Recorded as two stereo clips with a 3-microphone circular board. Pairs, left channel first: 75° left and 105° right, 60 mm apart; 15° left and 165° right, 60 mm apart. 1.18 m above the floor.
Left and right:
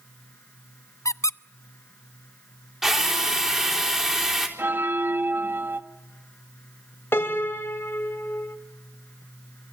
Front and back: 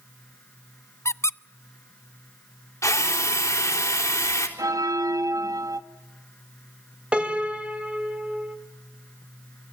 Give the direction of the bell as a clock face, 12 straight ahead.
5 o'clock.